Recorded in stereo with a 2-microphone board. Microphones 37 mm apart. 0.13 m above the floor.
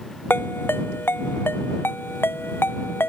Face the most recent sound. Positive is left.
turn(degrees=75)  # may be behind; listen again after turning